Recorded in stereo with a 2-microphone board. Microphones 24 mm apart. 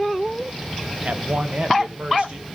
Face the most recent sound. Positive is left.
turn(degrees=-45)  # may be behind; listen again after turning